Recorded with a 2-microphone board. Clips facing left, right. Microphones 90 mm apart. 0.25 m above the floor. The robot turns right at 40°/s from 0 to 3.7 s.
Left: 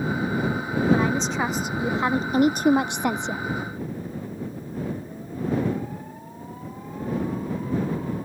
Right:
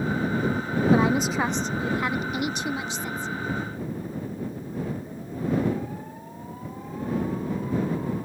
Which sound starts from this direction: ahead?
A woman speaking, at 0.9 s.